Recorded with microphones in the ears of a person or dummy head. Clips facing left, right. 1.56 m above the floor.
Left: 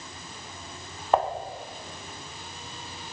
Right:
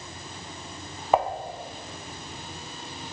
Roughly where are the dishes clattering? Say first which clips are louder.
Right 1 dB; centre.